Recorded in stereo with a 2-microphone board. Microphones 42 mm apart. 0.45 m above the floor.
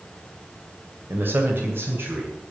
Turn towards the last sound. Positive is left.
turn(degrees=-75)  # may be behind; listen again after turning